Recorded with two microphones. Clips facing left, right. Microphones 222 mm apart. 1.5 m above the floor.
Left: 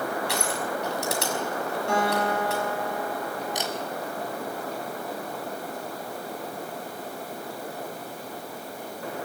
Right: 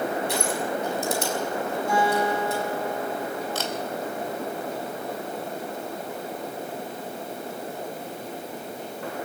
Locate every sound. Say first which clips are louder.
0.3 s crushing: right 3 dB; 70° left (ahead or behind), 5.5 m
1.9 s a guitar: right 2 dB; 70° left (ahead or behind), 9.5 m
3.5 s a camera shutter: right 1 dB; 15° left (ahead or behind), 3.5 m